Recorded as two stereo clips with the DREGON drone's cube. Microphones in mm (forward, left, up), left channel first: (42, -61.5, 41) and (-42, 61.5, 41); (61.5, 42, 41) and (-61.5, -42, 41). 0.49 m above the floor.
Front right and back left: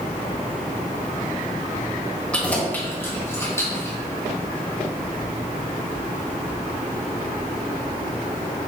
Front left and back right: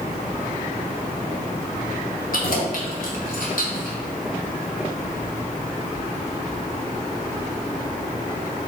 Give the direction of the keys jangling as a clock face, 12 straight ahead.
11 o'clock.